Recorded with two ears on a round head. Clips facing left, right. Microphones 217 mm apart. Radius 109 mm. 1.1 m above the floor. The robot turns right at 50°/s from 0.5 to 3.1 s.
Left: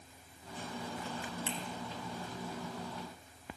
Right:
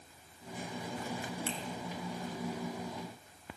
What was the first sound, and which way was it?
A finger snap, 15° left (ahead or behind).